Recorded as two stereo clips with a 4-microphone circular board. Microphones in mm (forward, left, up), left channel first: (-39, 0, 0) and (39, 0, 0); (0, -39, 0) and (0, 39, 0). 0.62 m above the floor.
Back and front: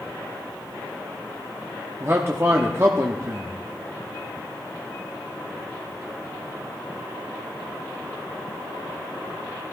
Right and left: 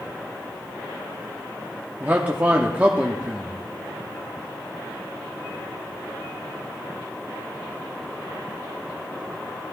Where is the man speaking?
30° left, 1.0 m.